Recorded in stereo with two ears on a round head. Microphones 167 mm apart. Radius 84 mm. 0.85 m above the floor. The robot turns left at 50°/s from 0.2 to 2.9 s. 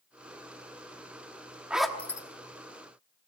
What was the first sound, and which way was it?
A zipper, 5° right (ahead or behind).